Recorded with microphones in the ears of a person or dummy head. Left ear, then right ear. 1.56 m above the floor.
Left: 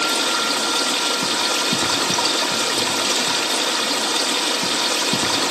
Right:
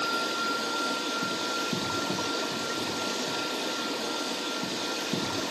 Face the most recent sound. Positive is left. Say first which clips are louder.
# left 9 dB
turn(degrees=45)  # may be behind; listen again after turning